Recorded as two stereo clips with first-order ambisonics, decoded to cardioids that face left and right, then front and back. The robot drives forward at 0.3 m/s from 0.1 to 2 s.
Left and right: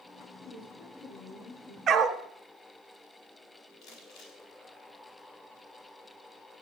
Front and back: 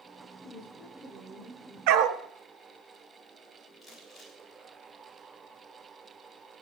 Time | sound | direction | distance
0.4 | a woman speaking | 80° left | 7.5 m
1.9 | a dog barking | 160° right | 0.9 m
3.8 | crumpling | 90° left | 3.5 m